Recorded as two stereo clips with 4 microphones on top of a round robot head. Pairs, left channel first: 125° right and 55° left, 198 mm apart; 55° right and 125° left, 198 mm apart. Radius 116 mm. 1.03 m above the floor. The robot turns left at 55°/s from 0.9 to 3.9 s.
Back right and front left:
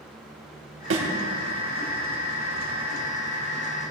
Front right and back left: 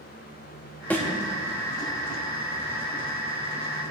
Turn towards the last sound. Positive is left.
turn(degrees=-135)